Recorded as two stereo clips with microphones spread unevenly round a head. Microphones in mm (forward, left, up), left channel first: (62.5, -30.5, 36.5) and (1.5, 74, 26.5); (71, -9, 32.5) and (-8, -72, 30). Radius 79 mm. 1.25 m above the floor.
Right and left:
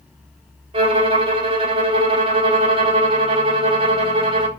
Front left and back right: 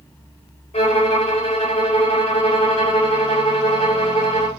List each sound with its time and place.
0.7 s a violin: 85° left, 3.5 m